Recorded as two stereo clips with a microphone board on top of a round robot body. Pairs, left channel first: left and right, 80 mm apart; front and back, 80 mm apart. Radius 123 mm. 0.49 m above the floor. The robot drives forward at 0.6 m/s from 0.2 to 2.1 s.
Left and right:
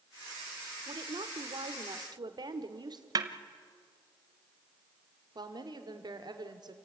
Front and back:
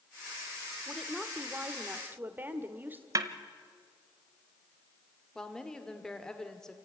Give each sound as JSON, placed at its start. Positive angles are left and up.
{"t": 0.9, "sound": "a woman speaking", "azimuth_deg": -85, "distance_m": 1.6}
{"t": 3.1, "sound": "a snare drum", "azimuth_deg": -130, "distance_m": 1.0}
{"t": 5.3, "sound": "a woman speaking", "azimuth_deg": -80, "distance_m": 2.5}